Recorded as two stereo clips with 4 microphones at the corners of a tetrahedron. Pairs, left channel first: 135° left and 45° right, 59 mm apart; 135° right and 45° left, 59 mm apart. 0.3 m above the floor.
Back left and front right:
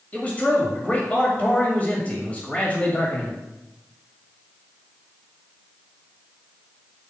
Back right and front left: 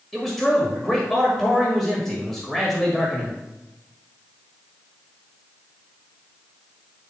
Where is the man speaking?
145° left, 1.6 m.